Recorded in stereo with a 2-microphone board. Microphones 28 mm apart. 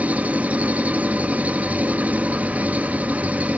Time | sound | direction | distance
0.0 | an engine running | 65° right (ahead or behind) | 1.0 m